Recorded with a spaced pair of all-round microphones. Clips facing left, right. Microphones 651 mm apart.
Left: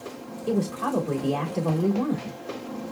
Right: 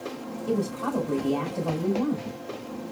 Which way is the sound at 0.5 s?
85° left.